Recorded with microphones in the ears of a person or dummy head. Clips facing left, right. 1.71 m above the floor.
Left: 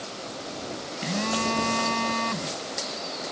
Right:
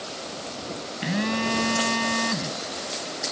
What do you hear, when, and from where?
1.0 s a phone buzzing: 15° right (ahead or behind)